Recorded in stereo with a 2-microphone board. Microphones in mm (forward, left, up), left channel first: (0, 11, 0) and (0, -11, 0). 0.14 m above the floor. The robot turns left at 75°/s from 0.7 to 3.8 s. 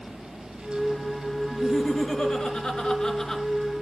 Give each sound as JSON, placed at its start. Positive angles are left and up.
{"t": 1.5, "sound": "laughter", "azimuth_deg": 165, "distance_m": 2.5}